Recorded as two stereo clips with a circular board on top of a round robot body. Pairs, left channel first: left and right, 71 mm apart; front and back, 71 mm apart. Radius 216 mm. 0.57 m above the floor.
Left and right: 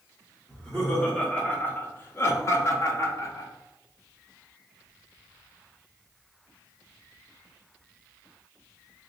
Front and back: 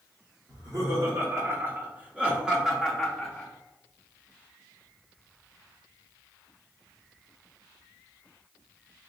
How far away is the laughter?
About 1.6 m.